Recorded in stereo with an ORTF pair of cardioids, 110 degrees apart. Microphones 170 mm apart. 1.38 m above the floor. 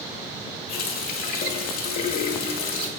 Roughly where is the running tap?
Ahead left.